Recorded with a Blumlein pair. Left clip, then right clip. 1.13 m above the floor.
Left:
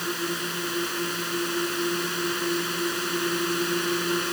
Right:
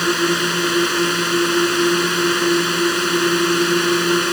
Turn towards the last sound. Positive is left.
turn(degrees=-65)